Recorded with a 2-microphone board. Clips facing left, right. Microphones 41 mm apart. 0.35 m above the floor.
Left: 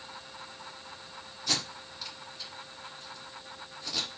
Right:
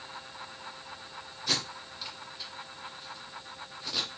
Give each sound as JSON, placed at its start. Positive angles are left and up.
{"t": 1.5, "sound": "tape being pulled", "side_deg": -10, "distance_m": 1.6}